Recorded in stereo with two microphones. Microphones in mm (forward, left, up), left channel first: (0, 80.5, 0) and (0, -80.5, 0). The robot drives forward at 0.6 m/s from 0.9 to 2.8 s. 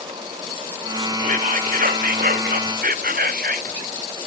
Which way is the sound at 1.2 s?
55° right (ahead or behind).